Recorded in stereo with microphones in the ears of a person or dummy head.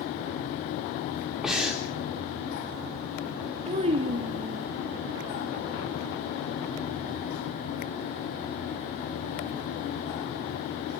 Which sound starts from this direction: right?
A child speaking, at 3.7 s.